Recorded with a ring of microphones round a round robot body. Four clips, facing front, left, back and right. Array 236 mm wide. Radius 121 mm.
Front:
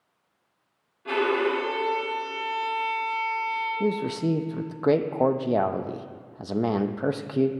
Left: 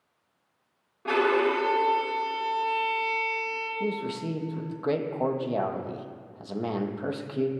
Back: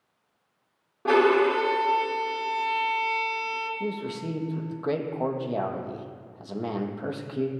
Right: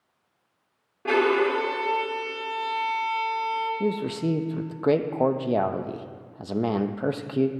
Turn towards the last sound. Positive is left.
turn(degrees=-40)